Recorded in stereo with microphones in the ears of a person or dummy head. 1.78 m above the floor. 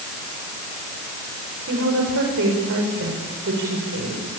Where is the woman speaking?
70° right (ahead or behind), 7.5 m.